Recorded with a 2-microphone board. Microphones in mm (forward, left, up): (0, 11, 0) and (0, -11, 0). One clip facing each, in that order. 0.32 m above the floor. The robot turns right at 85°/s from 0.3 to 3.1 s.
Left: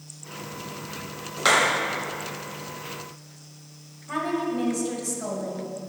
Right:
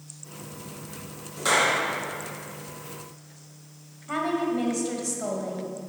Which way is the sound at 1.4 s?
95° left.